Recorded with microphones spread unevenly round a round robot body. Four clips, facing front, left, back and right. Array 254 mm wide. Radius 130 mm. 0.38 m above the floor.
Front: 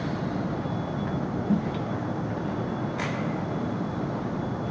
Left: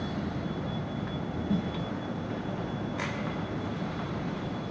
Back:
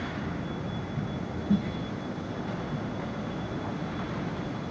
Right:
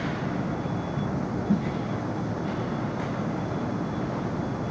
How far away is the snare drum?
About 5 m.